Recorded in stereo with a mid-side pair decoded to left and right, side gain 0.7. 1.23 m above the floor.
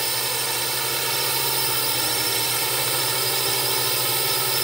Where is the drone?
10° right.